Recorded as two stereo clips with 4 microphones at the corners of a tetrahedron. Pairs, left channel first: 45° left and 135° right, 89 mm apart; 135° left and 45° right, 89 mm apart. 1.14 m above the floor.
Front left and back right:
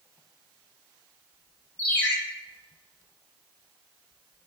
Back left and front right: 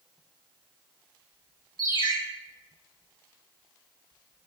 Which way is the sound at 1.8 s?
120° left.